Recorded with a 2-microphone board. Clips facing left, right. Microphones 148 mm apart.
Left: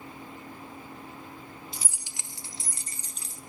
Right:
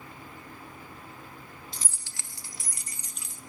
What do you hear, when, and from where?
1.7 s keys jangling: 5° left (ahead or behind), 1.1 m; by 3.4 s 35° left (ahead or behind), 1.8 m